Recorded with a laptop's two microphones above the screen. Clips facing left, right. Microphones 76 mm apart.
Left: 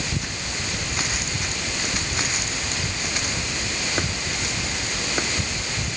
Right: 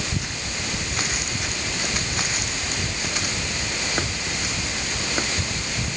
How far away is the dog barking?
No dog barking in this recording.